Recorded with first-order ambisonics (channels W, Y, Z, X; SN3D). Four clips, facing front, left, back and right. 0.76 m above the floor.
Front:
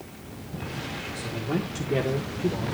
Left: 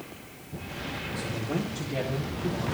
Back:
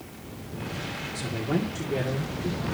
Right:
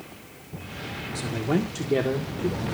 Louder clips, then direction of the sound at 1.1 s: Right 7 dB, back 2 dB; 115° right.